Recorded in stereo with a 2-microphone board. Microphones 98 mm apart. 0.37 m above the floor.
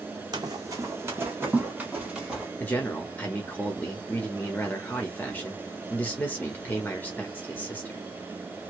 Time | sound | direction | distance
0.3 | running footsteps | 45° right (ahead or behind) | 0.9 m
2.6 | a man speaking | 20° left (ahead or behind) | 1.2 m